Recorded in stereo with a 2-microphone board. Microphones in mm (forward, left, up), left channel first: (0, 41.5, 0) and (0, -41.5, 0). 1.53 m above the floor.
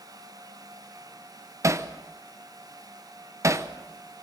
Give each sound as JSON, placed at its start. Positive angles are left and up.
{"t": 1.6, "sound": "hammering", "side_deg": -40, "distance_m": 0.9}